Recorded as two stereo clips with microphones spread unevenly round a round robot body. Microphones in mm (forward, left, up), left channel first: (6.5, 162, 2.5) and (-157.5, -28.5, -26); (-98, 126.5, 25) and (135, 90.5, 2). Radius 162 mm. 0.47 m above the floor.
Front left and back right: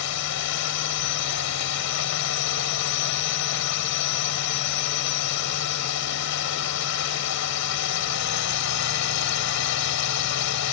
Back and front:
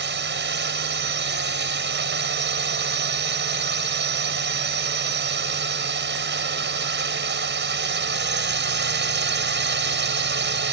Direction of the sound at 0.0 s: 25° left.